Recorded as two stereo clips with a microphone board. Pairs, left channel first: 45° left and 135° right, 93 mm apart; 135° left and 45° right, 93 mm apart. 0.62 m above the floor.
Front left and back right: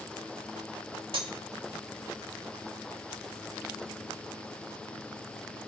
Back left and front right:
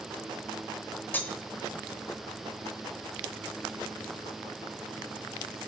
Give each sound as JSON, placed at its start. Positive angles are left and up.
{"t": 1.1, "sound": "cutlery clinking", "azimuth_deg": -155, "distance_m": 1.3}